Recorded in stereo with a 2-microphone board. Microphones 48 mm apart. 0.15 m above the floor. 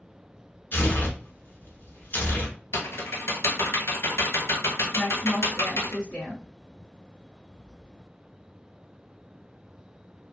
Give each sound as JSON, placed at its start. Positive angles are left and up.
{"t": 0.7, "sound": "tearing paper", "side_deg": 45, "distance_m": 1.0}
{"t": 2.7, "sound": "typing on a keyboard", "side_deg": 70, "distance_m": 0.8}
{"t": 4.9, "sound": "a woman speaking", "side_deg": 5, "distance_m": 1.9}